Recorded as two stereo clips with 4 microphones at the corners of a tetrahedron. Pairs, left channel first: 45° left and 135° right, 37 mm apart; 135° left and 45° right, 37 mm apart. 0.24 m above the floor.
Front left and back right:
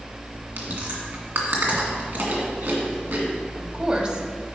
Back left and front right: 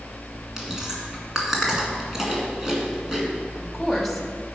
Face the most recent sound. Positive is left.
turn(degrees=-145)